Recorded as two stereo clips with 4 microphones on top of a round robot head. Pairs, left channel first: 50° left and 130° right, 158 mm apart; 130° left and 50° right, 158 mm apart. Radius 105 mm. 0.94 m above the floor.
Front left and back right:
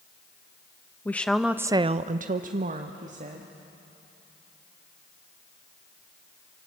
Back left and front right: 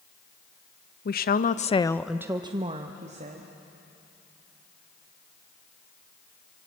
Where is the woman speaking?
125° left, 1.2 m; by 3.5 s 90° right, 2 m.